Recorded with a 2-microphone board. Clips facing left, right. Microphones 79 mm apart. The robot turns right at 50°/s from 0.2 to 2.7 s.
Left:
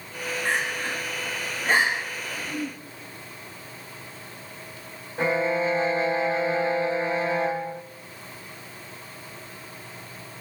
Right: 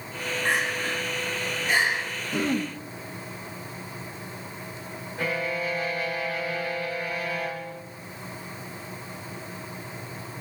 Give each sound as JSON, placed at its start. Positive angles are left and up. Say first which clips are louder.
{"t": 0.5, "sound": "crying", "louder": "right 1 dB", "side_deg": -20, "distance_m": 8.0}
{"t": 2.3, "sound": "throat clearing", "louder": "right 7 dB", "side_deg": -75, "distance_m": 4.0}
{"t": 5.2, "sound": "a violin", "louder": "left 6 dB", "side_deg": 30, "distance_m": 0.8}